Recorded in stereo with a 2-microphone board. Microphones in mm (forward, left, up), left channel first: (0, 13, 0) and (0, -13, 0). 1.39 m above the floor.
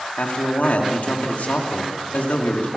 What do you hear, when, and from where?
0.2 s a man speaking: 75° left (ahead or behind), 2.5 m